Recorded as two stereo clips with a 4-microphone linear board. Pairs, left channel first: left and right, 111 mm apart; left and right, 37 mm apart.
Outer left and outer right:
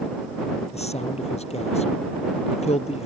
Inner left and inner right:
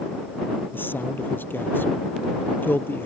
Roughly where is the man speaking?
Left.